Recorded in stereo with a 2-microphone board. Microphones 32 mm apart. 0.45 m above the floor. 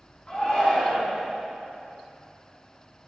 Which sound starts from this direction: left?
A shout, at 0.3 s.